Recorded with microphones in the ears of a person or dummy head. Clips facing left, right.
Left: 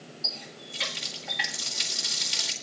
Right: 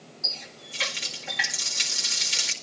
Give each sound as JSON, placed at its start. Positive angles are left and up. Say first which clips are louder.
{"t": 0.2, "sound": "a running tap", "louder": "left 1 dB", "side_deg": -50, "distance_m": 2.0}